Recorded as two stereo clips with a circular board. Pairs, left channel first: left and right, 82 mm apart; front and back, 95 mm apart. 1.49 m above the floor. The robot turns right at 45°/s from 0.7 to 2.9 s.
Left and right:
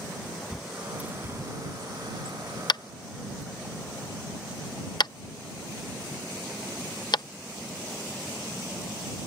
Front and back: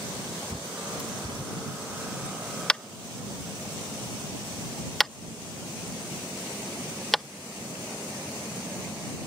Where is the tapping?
80° left; by 7.2 s 90° left.